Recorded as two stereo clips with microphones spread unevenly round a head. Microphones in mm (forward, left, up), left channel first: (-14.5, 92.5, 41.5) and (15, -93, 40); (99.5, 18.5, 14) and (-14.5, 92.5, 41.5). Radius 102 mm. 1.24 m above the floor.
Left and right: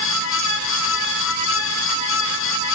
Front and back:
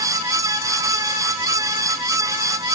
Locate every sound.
Only background noise.